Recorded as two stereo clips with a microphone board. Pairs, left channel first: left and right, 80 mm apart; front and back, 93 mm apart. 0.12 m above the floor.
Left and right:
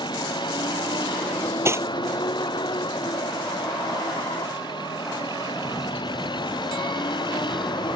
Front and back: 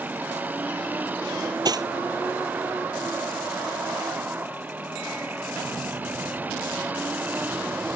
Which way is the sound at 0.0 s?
110° left.